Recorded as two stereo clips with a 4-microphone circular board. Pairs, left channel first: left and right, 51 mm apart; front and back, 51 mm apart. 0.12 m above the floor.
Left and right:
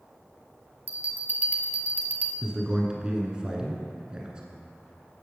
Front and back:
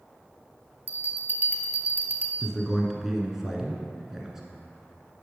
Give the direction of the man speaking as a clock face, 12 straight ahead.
4 o'clock.